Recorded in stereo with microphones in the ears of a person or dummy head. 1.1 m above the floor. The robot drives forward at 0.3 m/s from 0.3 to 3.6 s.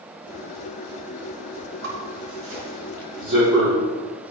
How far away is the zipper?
About 4.5 m.